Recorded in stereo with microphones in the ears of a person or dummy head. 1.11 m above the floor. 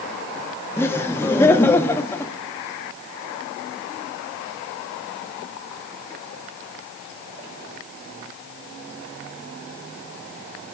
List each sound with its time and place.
0.8 s laughter: 15° left (ahead or behind), 0.7 m